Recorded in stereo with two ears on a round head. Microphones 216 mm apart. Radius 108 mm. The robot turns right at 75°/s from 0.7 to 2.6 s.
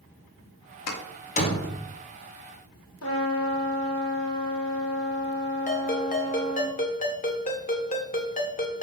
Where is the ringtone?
35° left (ahead or behind), 1.4 m.